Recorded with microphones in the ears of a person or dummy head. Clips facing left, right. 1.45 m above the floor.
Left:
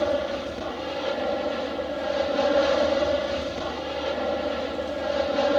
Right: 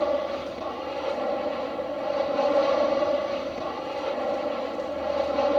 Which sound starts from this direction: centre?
An aircraft, at 0.0 s.